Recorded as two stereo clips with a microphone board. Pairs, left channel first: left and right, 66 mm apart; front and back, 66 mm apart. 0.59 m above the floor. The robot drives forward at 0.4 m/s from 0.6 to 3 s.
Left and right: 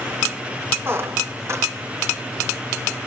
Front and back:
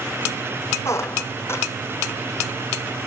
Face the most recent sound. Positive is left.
turn(degrees=-65)